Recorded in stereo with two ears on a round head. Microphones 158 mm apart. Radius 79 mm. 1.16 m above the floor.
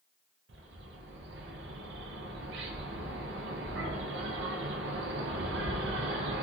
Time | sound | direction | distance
0.5 | a bird | 75° right (ahead or behind) | 0.5 m